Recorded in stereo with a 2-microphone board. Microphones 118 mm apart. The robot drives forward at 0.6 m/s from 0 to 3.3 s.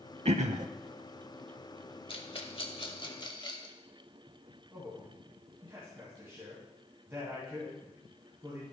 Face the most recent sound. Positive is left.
turn(degrees=-20)  # may be behind; listen again after turning